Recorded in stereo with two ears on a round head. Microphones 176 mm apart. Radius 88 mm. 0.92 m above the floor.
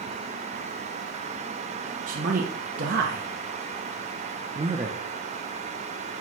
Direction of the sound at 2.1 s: 40° right (ahead or behind).